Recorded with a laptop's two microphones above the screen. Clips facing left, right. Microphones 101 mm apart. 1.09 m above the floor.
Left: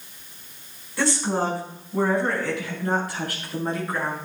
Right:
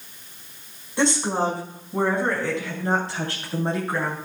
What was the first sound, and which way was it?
A woman speaking, 20° right (ahead or behind).